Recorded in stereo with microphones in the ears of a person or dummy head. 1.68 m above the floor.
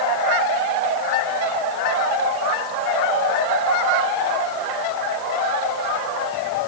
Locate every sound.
Only background noise.